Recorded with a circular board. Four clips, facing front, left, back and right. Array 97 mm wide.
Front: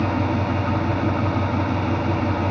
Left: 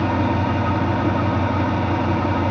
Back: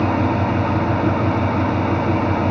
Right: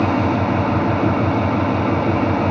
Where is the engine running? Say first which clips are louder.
Right 3 dB, back 4 dB; 120° right, 4 m.